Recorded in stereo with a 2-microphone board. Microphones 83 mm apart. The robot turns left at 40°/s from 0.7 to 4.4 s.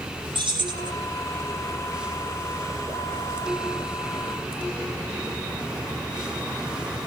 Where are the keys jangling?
85° right, 6 m.